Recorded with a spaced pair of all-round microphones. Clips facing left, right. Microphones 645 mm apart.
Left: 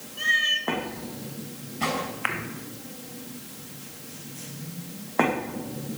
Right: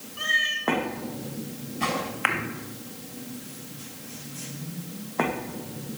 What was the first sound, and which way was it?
A cat meowing, 70° right (ahead or behind).